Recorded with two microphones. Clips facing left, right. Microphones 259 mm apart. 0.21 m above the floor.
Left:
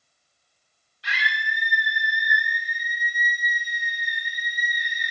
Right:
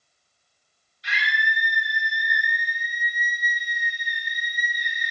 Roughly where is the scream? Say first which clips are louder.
Right 2 dB; left.